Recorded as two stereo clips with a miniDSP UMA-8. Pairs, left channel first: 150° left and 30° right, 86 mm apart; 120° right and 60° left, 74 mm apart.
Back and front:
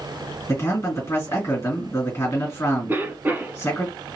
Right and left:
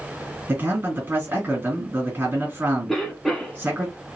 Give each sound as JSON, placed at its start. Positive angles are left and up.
{"t": 0.5, "sound": "a man speaking", "azimuth_deg": 105, "distance_m": 2.5}
{"t": 2.9, "sound": "a cough", "azimuth_deg": -35, "distance_m": 1.2}